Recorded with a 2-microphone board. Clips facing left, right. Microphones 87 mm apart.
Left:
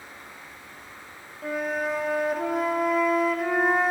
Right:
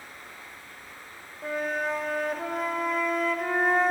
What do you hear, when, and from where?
0.0 s running water: 20° left (ahead or behind), 6 m
1.4 s a flute: 5° left (ahead or behind), 1.6 m